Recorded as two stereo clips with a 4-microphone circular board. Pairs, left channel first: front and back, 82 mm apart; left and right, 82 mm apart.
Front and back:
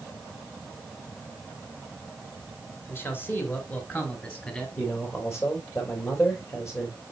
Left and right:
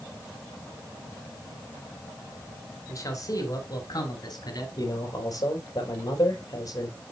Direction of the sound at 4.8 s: 50° left.